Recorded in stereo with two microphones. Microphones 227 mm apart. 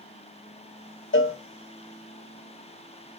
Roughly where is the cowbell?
Left.